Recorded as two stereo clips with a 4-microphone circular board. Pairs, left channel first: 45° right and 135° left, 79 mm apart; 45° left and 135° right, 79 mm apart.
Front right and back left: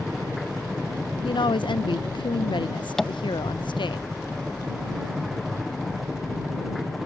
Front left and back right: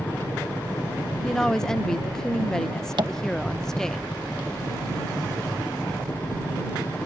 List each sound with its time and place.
0.0 s a helicopter: 55° left
1.2 s a woman speaking: 40° right
3.0 s tapping: 125° right